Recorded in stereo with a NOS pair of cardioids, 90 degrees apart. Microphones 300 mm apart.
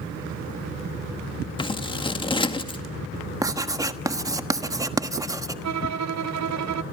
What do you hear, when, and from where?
1.6 s scissors: 15° left, 1.9 m
3.4 s writing: 10° right, 1.3 m
5.6 s a violin: 65° right, 1.0 m